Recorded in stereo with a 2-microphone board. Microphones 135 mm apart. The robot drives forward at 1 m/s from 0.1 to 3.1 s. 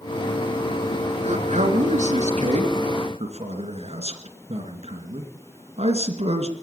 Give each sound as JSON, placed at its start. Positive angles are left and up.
{"t": 1.2, "sound": "a man speaking", "side_deg": -60, "distance_m": 2.5}